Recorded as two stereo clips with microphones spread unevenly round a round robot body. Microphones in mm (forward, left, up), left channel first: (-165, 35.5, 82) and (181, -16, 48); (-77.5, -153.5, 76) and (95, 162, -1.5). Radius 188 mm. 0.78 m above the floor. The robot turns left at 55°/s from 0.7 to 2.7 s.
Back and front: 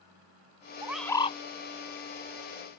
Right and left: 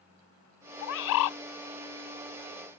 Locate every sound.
0.8 s a bird: 95° right; by 1.4 s 125° right